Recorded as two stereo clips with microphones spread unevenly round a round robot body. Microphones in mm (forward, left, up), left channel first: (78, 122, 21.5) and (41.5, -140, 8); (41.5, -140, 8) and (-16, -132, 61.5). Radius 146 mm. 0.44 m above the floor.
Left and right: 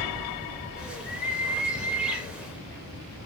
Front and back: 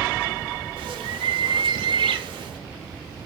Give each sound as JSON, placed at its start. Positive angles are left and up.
{"t": 0.8, "sound": "a bird", "azimuth_deg": 175, "distance_m": 0.5}